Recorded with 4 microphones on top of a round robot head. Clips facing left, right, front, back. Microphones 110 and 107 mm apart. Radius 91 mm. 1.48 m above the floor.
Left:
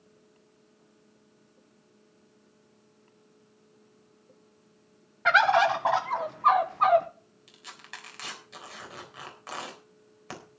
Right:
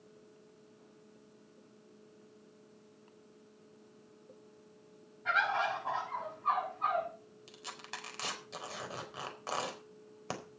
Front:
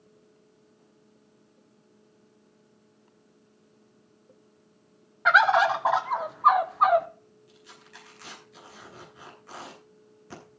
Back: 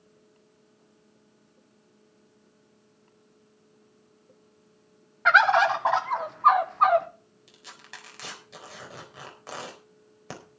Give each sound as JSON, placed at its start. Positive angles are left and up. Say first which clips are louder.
{"t": 5.2, "sound": "a bird", "louder": "left 11 dB, even", "azimuth_deg": 85, "distance_m": 1.5}
{"t": 7.5, "sound": "tearing paper", "louder": "right 1 dB, back 5 dB", "azimuth_deg": -145, "distance_m": 4.0}